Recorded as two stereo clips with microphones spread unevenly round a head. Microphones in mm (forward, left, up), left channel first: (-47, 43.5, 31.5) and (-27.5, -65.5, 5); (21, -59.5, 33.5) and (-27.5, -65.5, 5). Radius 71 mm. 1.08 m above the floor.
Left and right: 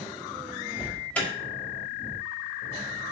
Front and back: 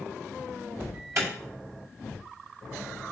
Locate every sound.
0.8 s an alarm: 175° left, 5.5 m